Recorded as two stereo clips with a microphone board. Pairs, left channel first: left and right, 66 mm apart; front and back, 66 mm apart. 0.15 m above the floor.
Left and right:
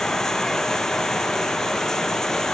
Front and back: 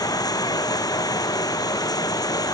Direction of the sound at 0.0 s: 10° left.